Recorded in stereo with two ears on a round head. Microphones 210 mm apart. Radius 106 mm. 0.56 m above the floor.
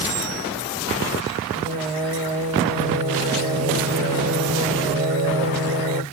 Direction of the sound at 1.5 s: 35° right (ahead or behind).